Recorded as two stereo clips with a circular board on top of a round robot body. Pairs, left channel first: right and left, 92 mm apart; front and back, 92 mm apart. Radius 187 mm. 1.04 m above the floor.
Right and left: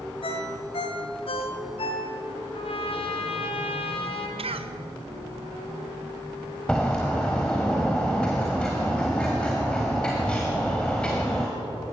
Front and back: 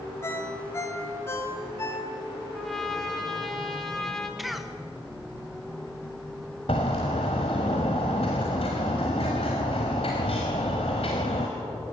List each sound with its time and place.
0.2 s a ringtone: 65° right, 1.4 m
2.5 s a trumpet: 90° right, 2.5 m
4.4 s a cough: 90° left, 1.6 m
6.7 s a bird: 10° right, 0.9 m